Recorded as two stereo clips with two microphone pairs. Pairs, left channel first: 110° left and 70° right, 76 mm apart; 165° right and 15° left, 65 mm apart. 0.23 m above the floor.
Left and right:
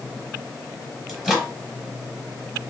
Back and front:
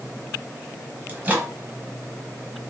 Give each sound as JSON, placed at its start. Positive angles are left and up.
{"t": 1.1, "sound": "a microwave", "azimuth_deg": 5, "distance_m": 1.1}